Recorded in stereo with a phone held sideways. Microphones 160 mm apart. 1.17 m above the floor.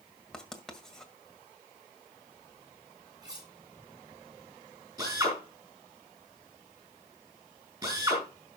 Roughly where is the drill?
Right.